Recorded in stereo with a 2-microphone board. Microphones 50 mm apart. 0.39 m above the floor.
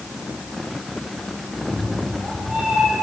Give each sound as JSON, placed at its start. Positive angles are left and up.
{"t": 1.5, "sound": "a cat meowing", "side_deg": -25, "distance_m": 7.5}